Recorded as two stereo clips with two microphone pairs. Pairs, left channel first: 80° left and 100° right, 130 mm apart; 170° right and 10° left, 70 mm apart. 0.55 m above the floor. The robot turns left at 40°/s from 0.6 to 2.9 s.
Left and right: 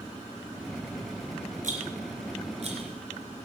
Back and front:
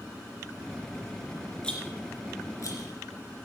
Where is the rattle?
95° right, 2.5 m; by 3.5 s 145° right, 2.5 m.